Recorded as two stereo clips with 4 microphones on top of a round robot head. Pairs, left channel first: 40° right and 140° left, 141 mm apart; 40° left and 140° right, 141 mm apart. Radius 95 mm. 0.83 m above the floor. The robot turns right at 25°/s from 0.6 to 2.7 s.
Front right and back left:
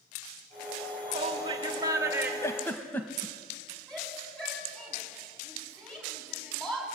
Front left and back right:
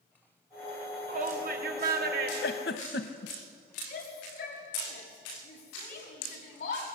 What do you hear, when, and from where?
1.1 s a shout: 170° right, 2.5 m; by 2.3 s 140° right, 2.5 m
2.4 s a giggle: 35° left, 1.1 m; by 3.4 s 40° left, 1.1 m
3.9 s a shout: 50° left, 7 m